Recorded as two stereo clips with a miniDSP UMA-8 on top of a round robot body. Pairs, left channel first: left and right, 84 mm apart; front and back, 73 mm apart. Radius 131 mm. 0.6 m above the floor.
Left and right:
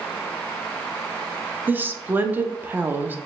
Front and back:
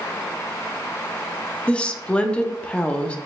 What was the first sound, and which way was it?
A woman speaking, 55° right.